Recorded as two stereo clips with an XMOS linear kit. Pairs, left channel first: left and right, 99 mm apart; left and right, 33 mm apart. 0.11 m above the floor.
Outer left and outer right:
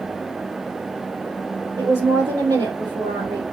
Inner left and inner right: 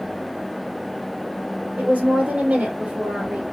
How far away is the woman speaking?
About 3.5 m.